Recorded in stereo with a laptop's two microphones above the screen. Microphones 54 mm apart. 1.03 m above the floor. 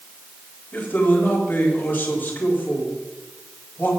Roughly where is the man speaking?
Left.